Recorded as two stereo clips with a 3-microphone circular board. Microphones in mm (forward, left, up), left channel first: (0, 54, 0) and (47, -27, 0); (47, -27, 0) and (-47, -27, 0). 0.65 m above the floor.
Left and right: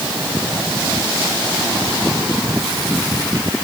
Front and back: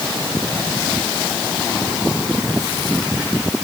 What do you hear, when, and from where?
Only background noise.